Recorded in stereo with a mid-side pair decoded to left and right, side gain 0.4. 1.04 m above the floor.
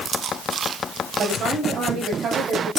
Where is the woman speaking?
65° right, 5 m.